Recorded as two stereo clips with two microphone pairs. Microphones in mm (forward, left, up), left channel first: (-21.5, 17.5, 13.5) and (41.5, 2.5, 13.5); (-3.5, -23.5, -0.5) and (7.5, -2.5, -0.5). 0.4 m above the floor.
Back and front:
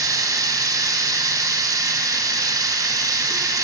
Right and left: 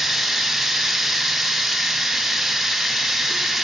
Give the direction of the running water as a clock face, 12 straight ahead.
1 o'clock.